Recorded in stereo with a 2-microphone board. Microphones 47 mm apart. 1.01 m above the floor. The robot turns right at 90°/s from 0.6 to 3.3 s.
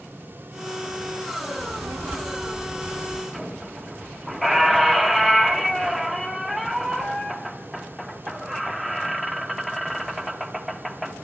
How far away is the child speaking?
About 1.2 m.